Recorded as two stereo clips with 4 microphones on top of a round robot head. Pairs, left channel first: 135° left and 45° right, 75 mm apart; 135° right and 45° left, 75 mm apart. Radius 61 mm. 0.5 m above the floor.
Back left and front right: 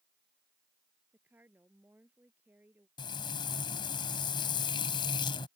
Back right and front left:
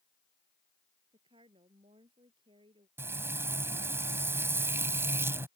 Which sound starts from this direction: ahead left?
A woman speaking, at 1.1 s.